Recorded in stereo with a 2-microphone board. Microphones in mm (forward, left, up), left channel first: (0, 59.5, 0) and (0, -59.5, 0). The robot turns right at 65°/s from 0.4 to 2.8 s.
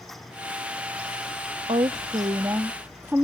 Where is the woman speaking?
90° right; by 3.2 s 20° right.